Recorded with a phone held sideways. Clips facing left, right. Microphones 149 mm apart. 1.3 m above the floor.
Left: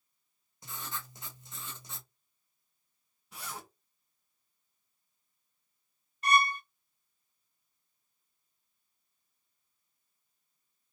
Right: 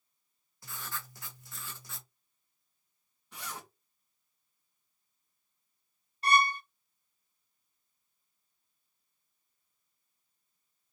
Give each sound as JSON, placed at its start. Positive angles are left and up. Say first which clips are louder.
{"t": 0.6, "sound": "writing", "louder": "left 1 dB", "side_deg": 20, "distance_m": 1.0}
{"t": 3.3, "sound": "a zipper", "louder": "even", "side_deg": 10, "distance_m": 2.0}
{"t": 6.2, "sound": "a violin", "louder": "even", "side_deg": -30, "distance_m": 0.9}